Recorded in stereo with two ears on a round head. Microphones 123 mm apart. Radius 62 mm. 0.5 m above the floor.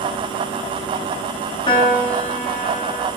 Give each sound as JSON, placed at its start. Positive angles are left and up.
{"t": 1.7, "sound": "a piano", "side_deg": 35, "distance_m": 1.6}